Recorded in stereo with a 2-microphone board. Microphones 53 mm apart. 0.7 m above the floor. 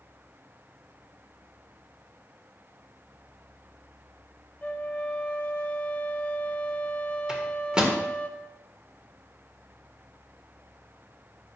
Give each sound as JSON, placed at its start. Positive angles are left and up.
{"t": 4.6, "sound": "a flute", "side_deg": 30, "distance_m": 0.8}
{"t": 7.3, "sound": "a microwave", "side_deg": -15, "distance_m": 1.7}